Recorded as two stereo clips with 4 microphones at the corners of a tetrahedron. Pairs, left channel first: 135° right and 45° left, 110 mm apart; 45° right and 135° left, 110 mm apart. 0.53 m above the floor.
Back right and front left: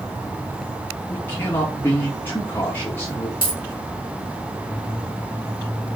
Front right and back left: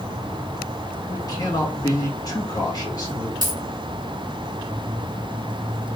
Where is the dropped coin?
85° left, 2.5 m.